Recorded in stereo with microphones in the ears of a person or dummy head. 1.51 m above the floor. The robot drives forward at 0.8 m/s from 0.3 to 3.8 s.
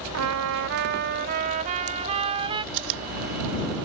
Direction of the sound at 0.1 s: 70° right (ahead or behind).